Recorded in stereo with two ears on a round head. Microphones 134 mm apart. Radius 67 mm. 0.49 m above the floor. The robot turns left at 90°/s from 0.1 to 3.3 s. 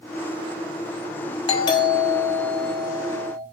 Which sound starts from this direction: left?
A doorbell, at 1.5 s.